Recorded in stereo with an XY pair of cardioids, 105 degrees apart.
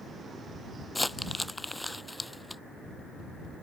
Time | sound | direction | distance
0.9 | crumpling | 5° left | ?